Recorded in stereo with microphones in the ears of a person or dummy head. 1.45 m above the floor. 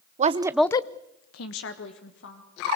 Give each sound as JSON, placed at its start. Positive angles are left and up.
{"t": 0.2, "sound": "a woman speaking", "side_deg": -30, "distance_m": 1.0}